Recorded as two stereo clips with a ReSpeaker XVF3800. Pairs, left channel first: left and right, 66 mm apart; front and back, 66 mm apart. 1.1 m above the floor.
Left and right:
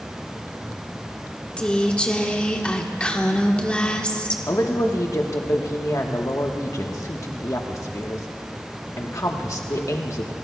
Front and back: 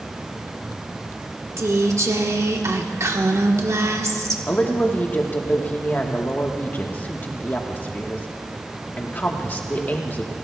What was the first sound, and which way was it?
A woman speaking, 160° left.